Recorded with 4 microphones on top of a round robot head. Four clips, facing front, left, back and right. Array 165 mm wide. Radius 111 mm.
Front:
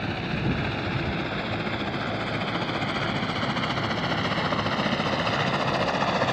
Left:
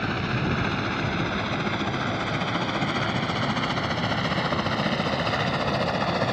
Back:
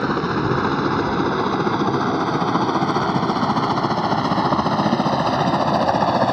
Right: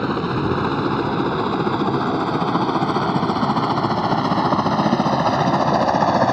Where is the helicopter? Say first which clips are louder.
Right 7 dB, back 9 dB; 135° right; by 6.3 s 125° right.